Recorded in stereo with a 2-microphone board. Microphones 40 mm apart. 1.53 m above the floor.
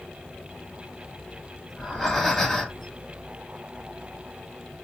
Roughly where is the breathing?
Centre.